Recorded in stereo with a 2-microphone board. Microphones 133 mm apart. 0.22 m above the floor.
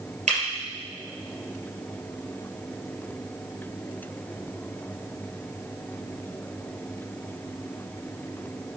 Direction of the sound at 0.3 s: 60° right (ahead or behind).